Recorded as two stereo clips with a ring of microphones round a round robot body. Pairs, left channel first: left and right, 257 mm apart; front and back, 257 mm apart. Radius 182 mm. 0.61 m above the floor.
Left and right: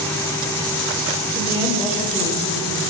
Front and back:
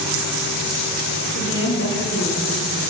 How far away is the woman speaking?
About 7.5 m.